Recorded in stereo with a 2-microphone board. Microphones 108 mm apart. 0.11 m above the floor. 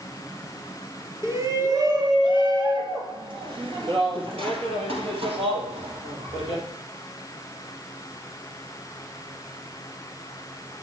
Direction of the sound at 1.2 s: 25° right (ahead or behind).